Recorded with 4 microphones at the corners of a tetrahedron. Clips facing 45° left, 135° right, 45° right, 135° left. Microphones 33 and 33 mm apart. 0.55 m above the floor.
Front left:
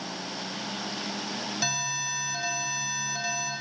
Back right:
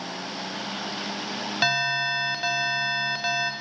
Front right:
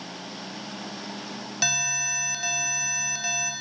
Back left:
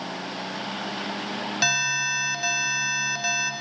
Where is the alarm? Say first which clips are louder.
Back right 10 dB, back left 4 dB; 160° right, 0.5 m.